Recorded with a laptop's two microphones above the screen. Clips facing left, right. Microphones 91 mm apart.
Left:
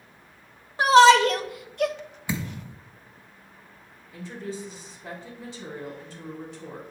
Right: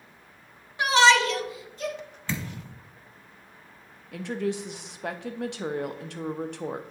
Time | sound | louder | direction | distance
0.8 | a shout | left 5 dB | 35° left (ahead or behind) | 1.2 m
2.3 | a thud | left 2 dB | 15° left (ahead or behind) | 0.9 m
4.1 | a woman speaking | right 6 dB | 75° right (ahead or behind) | 0.6 m